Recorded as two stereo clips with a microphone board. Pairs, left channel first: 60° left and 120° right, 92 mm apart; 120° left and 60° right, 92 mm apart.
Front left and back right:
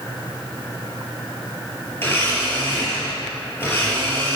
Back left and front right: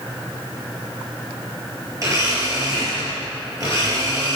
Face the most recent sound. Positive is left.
turn(degrees=-5)